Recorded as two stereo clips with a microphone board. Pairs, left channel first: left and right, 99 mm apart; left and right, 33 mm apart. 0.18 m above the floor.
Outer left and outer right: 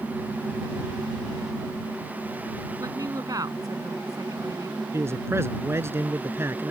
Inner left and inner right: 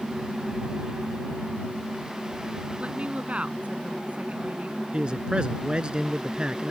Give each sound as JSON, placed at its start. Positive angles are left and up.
{"t": 2.8, "sound": "a woman speaking", "side_deg": -45}
{"t": 4.9, "sound": "a man speaking", "side_deg": -30}